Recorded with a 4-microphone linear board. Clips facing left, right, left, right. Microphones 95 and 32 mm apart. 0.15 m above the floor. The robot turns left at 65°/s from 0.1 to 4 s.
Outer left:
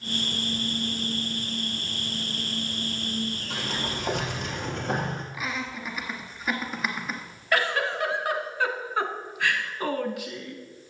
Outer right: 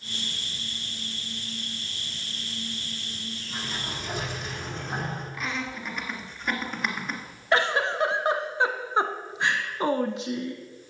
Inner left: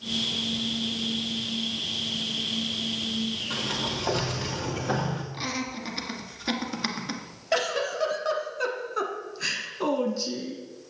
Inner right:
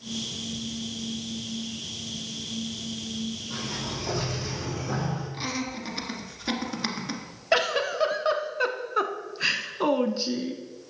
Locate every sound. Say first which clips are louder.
3.5 s a sliding door: outer left 4 dB, inner left 4 dB; 100° left, 2 m; by 5.2 s 70° left, 2 m
5.3 s laughter: even, even; 5° left (ahead or behind), 1.7 m
7.5 s a giggle: outer right 2 dB, inner right 2 dB; 25° right (ahead or behind), 0.9 m